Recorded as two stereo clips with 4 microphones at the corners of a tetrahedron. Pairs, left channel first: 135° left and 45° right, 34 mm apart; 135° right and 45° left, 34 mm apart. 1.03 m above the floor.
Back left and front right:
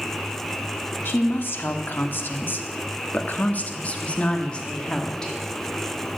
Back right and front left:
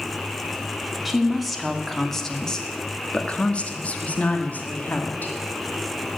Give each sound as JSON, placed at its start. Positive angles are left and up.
{"t": 1.1, "sound": "a woman speaking", "azimuth_deg": 135, "distance_m": 2.0}